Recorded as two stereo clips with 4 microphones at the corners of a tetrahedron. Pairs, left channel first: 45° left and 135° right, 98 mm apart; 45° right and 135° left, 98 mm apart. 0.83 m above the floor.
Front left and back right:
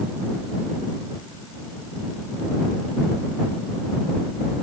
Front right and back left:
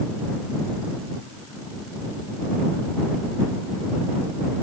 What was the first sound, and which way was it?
Only background noise.